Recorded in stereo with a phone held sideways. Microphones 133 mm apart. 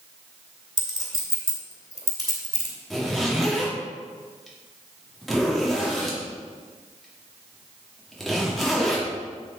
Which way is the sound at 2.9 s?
Centre (ahead or behind).